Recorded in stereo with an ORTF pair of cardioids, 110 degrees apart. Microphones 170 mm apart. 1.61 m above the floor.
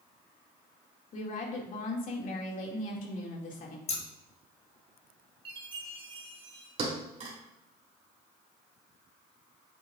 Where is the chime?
30° right, 3 m.